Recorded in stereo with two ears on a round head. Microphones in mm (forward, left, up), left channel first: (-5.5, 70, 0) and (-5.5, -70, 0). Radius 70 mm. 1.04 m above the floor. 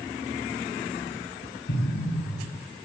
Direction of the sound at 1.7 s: 80° left.